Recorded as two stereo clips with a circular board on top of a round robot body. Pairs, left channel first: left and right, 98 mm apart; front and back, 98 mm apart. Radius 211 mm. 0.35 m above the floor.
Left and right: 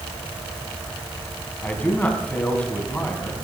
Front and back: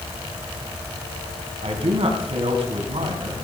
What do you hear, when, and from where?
1.6 s a man speaking: 165° left, 4 m